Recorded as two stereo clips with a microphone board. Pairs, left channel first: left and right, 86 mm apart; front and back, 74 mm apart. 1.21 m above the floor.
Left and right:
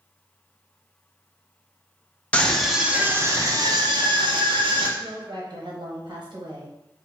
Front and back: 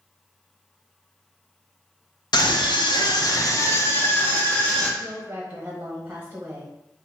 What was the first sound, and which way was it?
A scream, 15° left.